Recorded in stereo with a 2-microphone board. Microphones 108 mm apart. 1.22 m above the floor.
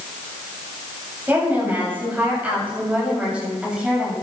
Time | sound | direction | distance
1.3 | a woman speaking | 20° right (ahead or behind) | 9 m